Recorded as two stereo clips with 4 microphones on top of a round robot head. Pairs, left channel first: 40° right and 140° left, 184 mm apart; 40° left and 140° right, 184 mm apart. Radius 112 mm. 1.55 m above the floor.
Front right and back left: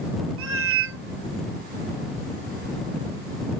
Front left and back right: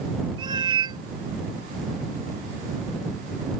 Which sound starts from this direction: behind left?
A cat meowing, at 0.4 s.